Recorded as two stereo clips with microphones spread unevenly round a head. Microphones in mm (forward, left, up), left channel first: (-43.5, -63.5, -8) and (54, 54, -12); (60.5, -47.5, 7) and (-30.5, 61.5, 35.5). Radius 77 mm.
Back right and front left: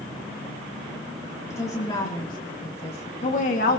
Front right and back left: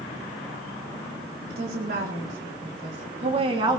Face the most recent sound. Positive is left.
turn(degrees=-165)